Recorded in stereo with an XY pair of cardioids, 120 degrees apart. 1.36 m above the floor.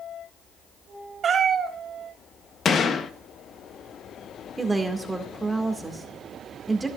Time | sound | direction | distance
1.2 | a cat meowing | 45° right | 3.5 m
2.6 | a gunshot | 40° left | 0.9 m
4.6 | a woman speaking | 15° right | 1.9 m